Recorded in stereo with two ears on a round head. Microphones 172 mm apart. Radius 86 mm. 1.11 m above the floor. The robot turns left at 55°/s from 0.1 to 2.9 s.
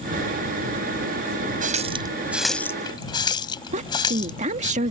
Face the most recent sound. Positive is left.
turn(degrees=-40)  # may be behind; listen again after turning